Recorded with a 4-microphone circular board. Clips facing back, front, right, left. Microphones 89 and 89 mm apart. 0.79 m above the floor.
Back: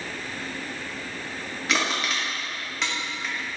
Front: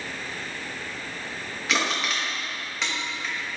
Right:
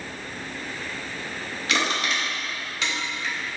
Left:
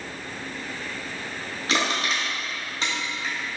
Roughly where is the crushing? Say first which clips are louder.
Even, even; left.